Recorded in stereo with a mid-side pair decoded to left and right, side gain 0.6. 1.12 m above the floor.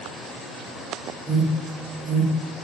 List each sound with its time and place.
1.3 s an alarm: 25° right, 0.9 m